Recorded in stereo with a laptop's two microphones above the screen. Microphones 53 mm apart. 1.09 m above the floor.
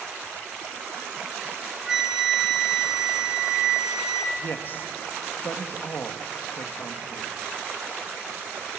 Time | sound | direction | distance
1.4 | a flute | 10° right (ahead or behind) | 2.5 m
4.4 | a man speaking | 40° left (ahead or behind) | 1.5 m